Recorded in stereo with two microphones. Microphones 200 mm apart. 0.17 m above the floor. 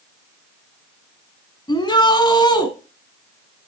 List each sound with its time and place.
1.7 s a shout: 20° left (ahead or behind), 1.5 m